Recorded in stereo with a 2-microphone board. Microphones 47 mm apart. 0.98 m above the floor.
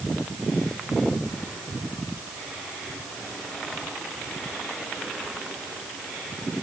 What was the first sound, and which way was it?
Only background noise.